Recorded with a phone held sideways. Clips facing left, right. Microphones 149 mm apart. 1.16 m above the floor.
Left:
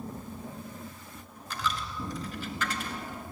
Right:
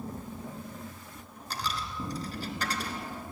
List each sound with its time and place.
1.5 s a dropped coin: 40° right (ahead or behind), 2 m